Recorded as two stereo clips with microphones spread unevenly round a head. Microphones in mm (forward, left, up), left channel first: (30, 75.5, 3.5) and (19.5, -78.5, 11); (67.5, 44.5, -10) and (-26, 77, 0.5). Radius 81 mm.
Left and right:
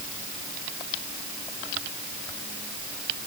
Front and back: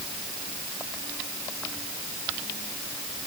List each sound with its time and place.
Only background noise.